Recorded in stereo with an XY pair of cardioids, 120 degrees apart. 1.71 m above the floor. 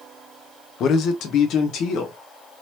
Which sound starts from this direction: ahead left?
A man speaking, at 0.8 s.